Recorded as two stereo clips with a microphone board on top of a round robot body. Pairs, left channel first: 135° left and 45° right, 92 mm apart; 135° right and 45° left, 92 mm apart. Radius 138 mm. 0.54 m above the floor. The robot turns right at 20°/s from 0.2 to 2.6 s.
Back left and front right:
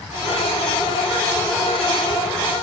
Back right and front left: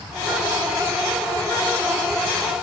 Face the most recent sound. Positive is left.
No sound to turn to.